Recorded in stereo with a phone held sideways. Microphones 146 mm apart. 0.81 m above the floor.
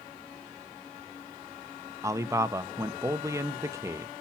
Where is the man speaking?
20° right (ahead or behind), 0.6 m.